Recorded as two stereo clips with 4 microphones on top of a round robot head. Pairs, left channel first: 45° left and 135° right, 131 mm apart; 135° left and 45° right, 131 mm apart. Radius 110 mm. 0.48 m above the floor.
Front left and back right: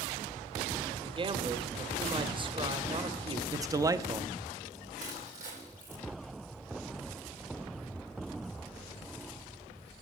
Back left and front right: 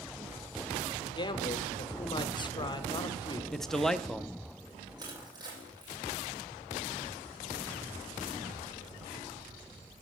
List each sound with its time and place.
1.0 s a man speaking: 175° right, 1.2 m
3.5 s a man speaking: 145° right, 0.9 m
5.0 s crushing: 105° right, 9.5 m